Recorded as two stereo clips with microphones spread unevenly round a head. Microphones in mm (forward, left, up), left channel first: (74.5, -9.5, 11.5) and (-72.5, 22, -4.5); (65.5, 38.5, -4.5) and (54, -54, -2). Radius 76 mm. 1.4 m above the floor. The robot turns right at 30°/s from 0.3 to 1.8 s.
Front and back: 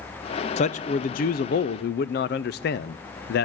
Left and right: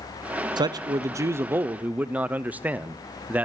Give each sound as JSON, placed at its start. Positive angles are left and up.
{"t": 0.6, "sound": "a man speaking", "azimuth_deg": -60, "distance_m": 0.5}